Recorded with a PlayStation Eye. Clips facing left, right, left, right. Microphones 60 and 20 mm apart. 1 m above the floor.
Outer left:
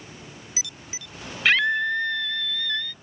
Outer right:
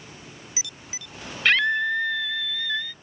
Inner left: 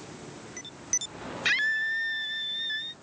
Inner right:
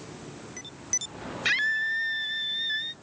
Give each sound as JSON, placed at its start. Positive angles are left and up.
{"t": 1.4, "sound": "a scream", "side_deg": 0}